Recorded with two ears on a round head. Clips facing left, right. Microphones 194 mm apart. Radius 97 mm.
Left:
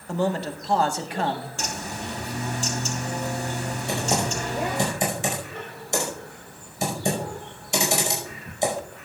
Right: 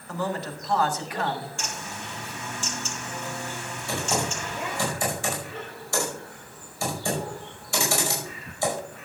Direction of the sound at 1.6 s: 35° left (ahead or behind).